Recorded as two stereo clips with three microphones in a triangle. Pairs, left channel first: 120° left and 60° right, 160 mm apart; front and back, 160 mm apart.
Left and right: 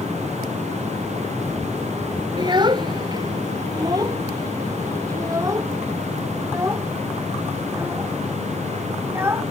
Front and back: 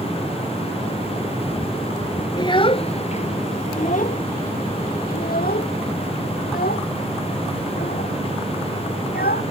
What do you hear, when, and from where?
2.4 s a child speaking: 30° right; by 9.4 s 15° left